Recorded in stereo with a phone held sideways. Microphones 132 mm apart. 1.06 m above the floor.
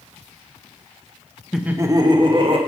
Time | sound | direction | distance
1.5 | laughter | centre (ahead or behind) | 0.7 m